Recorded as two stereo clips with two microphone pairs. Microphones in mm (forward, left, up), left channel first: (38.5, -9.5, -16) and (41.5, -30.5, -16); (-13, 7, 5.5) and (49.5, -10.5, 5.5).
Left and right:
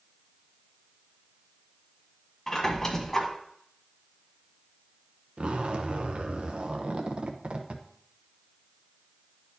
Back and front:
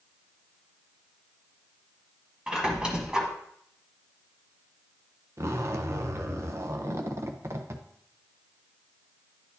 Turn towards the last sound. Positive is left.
turn(degrees=-60)